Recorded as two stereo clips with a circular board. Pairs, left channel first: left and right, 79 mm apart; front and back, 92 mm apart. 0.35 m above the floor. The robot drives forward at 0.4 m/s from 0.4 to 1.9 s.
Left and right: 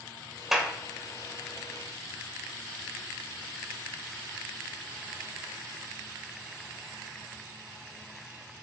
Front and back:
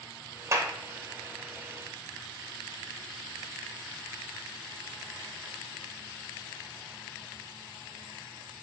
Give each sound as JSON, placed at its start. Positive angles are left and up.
{"t": 0.5, "sound": "a clap", "azimuth_deg": -170, "distance_m": 1.2}